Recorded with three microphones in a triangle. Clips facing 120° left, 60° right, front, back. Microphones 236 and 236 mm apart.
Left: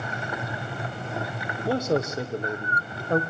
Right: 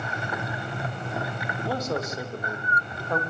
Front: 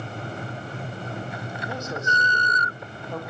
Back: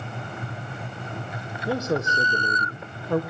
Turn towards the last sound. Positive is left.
turn(degrees=180)